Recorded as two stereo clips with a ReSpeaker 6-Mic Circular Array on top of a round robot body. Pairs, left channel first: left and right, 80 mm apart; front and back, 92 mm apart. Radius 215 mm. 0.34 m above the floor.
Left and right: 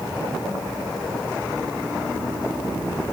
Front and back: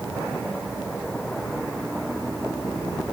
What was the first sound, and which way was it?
Only background noise.